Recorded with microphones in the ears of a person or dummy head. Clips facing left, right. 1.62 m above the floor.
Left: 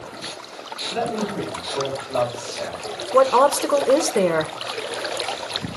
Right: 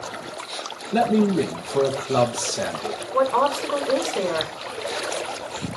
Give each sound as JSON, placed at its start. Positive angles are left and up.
{"t": 0.9, "sound": "a man speaking", "side_deg": -75, "distance_m": 1.7}
{"t": 3.1, "sound": "a woman speaking", "side_deg": 50, "distance_m": 1.3}